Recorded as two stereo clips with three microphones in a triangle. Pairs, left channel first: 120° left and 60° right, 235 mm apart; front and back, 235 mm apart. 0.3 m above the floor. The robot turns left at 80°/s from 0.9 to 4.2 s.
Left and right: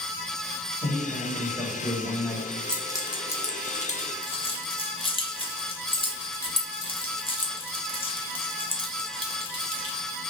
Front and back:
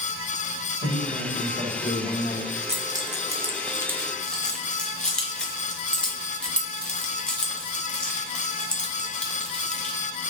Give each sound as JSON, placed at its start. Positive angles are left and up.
{"t": 0.8, "sound": "a man speaking", "azimuth_deg": 65, "distance_m": 1.4}
{"t": 2.7, "sound": "keys jangling", "azimuth_deg": -155, "distance_m": 0.6}